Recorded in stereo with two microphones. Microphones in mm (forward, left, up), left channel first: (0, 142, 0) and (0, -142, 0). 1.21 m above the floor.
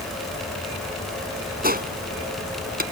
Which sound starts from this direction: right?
A gunshot, at 1.6 s.